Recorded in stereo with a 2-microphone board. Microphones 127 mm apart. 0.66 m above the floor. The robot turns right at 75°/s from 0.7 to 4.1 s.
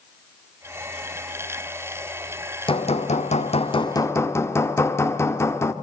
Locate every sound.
2.7 s hammering: 50° left, 1.6 m; by 5.7 s 160° left, 1.6 m